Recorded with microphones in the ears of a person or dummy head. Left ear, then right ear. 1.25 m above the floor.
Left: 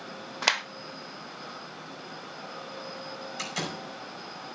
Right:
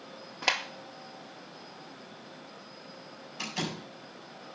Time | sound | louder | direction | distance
0.4 | a clap | left 3 dB | 35° left (ahead or behind) | 0.6 m
3.4 | a door slam | even | 65° left (ahead or behind) | 5 m